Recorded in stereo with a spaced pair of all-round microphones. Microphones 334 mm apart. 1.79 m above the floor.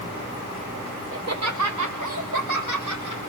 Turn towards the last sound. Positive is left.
turn(degrees=-60)  # may be behind; listen again after turning